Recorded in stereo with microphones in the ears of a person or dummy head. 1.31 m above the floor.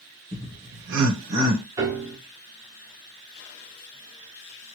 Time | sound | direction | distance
0.3 | laughter | 30° right (ahead or behind) | 1.1 m
1.8 | a piano | 20° right (ahead or behind) | 1.1 m